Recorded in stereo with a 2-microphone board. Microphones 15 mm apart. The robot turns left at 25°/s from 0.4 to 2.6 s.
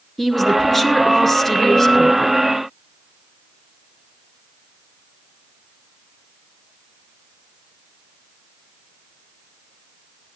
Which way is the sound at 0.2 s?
165° left.